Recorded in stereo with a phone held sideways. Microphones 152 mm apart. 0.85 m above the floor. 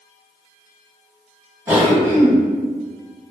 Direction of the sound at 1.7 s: 15° right (ahead or behind).